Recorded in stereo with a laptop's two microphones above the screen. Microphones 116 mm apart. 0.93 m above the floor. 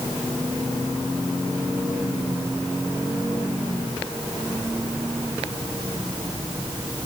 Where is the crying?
No crying in this recording.